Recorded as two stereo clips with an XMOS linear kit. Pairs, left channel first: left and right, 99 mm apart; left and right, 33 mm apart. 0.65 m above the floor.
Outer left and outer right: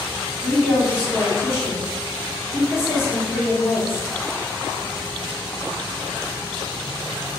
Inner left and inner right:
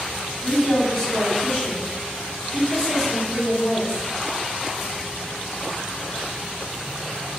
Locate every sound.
0.4 s a woman speaking: centre (ahead or behind), 1.3 m